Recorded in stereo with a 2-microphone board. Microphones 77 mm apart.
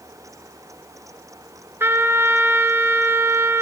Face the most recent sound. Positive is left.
turn(degrees=-30)  # may be behind; listen again after turning